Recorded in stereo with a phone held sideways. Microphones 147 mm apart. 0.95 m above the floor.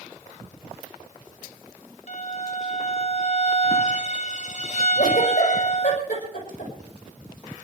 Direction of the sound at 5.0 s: 55° left (ahead or behind).